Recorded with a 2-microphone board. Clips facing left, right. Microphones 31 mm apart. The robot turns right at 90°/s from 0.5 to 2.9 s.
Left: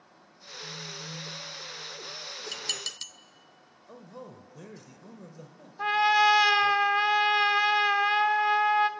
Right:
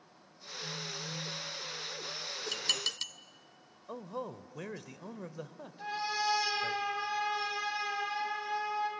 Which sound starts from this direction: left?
A trumpet, at 5.8 s.